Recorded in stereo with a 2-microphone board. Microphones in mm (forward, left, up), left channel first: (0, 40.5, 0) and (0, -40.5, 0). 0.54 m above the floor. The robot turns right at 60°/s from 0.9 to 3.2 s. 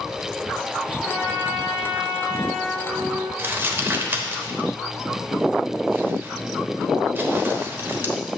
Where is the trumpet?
25° right, 4 m; by 3.3 s 110° left, 4 m.